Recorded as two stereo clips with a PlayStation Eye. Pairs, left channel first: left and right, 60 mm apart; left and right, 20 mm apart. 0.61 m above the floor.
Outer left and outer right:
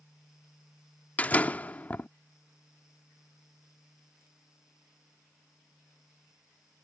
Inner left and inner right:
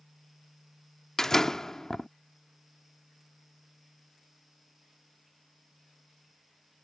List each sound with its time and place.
1.2 s a door slam: 25° left (ahead or behind)